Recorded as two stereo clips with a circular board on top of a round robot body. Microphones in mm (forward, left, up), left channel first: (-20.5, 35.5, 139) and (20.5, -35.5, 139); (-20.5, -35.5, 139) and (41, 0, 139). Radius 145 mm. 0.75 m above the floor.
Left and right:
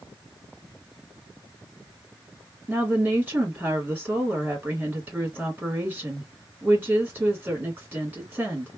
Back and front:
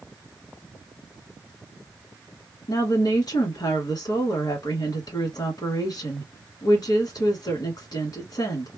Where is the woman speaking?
130° right, 1.7 m.